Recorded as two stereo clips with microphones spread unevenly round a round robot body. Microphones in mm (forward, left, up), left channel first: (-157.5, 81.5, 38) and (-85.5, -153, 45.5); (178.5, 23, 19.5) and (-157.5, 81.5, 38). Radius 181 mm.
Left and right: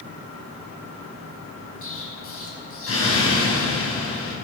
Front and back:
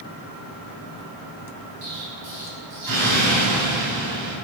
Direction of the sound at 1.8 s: 140° left.